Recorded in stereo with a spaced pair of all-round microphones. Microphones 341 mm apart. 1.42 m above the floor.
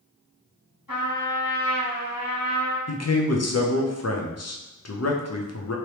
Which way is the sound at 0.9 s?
70° left (ahead or behind).